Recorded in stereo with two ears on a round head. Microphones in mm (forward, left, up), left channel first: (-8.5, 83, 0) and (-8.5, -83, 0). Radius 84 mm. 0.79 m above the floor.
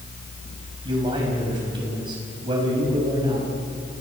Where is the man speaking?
25° right (ahead or behind), 6.5 m.